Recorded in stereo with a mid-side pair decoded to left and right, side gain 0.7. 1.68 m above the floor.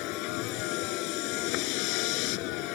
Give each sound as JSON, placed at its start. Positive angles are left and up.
{"t": 0.0, "sound": "a vehicle", "azimuth_deg": 65}